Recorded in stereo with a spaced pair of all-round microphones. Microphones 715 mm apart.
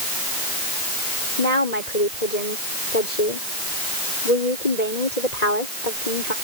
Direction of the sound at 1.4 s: 65° left (ahead or behind).